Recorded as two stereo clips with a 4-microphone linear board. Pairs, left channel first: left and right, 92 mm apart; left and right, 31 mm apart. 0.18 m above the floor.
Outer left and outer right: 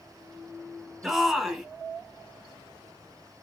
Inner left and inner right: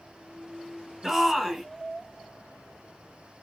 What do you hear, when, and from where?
1.0 s a shout: 5° right (ahead or behind), 1.5 m